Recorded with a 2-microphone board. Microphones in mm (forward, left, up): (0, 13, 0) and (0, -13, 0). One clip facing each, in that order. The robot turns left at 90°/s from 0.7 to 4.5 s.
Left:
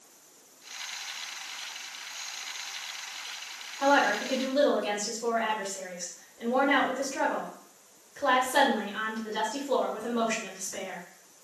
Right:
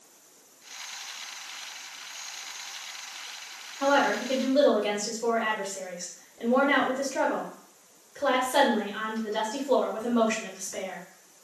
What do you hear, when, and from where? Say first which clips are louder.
3.8 s a woman speaking: even; 5° right (ahead or behind), 1.4 m; by 11.0 s 25° right (ahead or behind), 1.4 m